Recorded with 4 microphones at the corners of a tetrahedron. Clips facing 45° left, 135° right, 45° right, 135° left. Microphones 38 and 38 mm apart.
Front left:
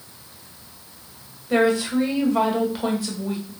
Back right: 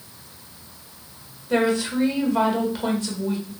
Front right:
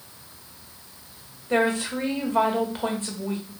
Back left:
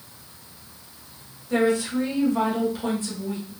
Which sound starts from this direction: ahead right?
A woman speaking, at 1.5 s.